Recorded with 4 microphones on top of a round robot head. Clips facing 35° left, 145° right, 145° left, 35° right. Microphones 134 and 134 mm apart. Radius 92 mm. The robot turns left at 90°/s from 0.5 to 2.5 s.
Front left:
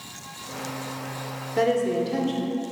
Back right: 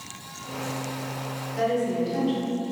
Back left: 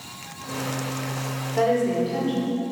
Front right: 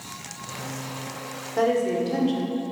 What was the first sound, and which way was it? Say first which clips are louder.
A woman speaking: front left 3 dB, back left 1 dB; 60° left.